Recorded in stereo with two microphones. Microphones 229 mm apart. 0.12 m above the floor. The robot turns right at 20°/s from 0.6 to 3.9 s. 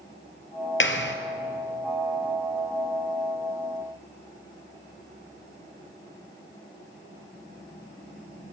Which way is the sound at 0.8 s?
60° left (ahead or behind).